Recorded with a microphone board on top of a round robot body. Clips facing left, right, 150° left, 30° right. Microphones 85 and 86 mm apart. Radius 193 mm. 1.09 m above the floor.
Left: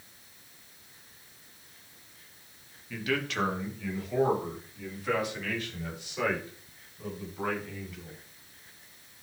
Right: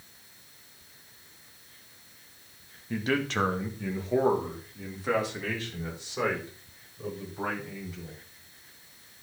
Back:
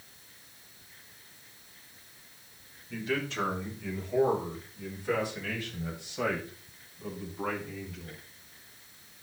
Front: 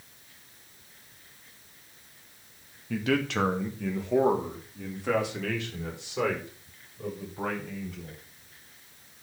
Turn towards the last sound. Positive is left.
turn(degrees=-30)